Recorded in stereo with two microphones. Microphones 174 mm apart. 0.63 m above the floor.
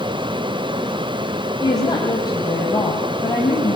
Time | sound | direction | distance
1.6 | a woman speaking | 20° left (ahead or behind) | 3.5 m